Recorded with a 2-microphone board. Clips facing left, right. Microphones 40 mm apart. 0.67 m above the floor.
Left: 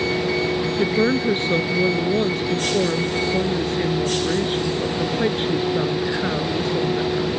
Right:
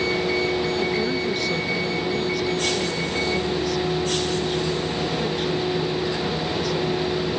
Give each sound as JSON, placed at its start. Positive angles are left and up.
{"t": 0.8, "sound": "a woman speaking", "side_deg": 35}